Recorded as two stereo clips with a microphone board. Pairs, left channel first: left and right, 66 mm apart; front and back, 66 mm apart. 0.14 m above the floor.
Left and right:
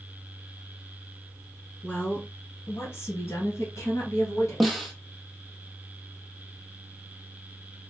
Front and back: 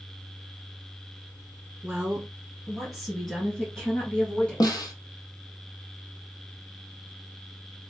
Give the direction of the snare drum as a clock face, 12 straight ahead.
12 o'clock.